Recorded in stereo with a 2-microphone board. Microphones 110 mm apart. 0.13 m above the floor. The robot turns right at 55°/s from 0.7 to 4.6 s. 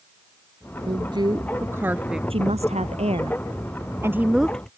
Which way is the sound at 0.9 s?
50° right (ahead or behind).